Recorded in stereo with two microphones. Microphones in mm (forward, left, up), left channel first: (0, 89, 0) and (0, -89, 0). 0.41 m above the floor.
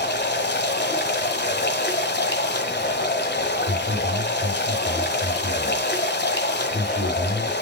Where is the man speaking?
50° right (ahead or behind), 5.5 m.